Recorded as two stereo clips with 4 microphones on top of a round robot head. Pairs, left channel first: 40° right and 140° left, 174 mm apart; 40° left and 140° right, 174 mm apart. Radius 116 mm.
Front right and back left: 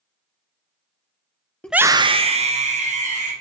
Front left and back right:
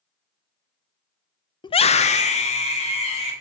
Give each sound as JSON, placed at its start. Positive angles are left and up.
{"t": 1.6, "sound": "a scream", "azimuth_deg": 35, "distance_m": 0.5}